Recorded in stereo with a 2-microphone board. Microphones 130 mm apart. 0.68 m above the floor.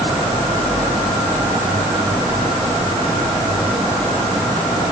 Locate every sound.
Only background noise.